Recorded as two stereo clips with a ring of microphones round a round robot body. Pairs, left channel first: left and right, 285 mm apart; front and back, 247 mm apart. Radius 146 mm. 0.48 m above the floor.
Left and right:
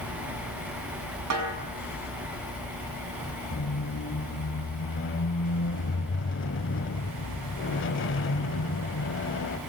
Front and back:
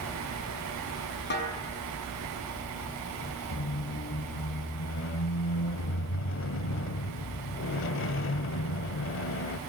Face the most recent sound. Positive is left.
turn(degrees=40)